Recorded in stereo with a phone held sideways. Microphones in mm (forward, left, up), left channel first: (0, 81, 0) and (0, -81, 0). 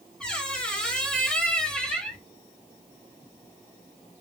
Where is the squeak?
5° left (ahead or behind), 0.7 m.